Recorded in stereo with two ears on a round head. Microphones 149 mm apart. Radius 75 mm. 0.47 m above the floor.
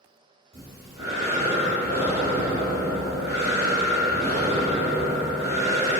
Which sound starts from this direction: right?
Breathing, at 0.5 s.